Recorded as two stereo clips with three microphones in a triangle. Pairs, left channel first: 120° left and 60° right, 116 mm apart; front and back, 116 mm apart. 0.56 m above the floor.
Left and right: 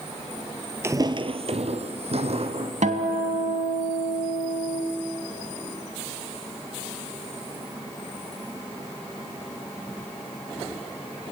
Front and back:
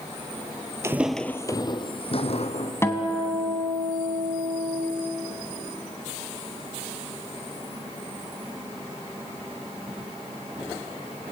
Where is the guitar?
70° right, 1.9 m.